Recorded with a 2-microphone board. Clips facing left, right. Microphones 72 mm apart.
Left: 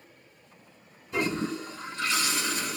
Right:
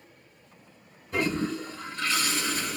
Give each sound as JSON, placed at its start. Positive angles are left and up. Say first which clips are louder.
{"t": 1.1, "sound": "a toilet flushing", "louder": "right 1 dB", "side_deg": -40, "distance_m": 1.9}